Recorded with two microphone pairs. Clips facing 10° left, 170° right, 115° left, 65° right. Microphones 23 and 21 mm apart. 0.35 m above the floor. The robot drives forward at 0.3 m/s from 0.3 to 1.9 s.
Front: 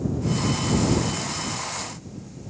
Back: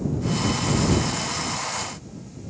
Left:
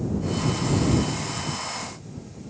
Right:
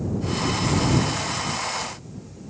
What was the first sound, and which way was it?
Only background noise.